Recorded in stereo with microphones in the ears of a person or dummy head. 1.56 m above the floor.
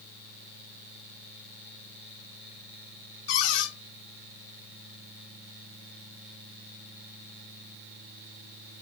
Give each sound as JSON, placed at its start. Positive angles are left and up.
{"t": 3.3, "sound": "a cupboard door", "side_deg": 70, "distance_m": 3.0}